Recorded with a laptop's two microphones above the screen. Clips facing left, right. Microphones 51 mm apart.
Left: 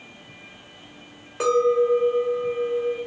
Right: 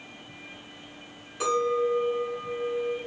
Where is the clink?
65° left (ahead or behind), 2.5 m.